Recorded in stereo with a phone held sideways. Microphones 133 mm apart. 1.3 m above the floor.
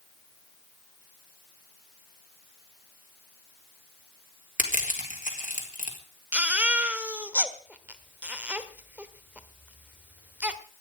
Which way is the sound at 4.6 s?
85° left.